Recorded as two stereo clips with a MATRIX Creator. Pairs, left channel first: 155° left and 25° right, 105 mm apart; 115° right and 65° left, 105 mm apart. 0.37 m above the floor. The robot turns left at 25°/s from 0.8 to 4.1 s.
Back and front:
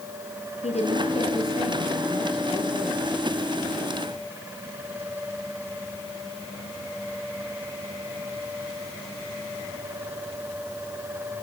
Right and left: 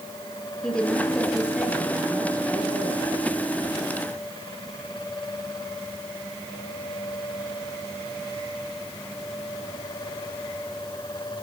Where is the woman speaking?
165° left, 6.5 m; by 3.0 s 110° left, 6.5 m.